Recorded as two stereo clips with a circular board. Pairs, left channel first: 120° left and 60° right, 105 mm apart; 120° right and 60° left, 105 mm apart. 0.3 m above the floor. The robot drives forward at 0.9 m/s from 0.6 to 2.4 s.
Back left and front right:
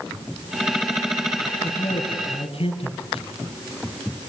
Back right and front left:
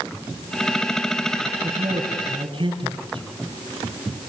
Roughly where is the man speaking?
Left.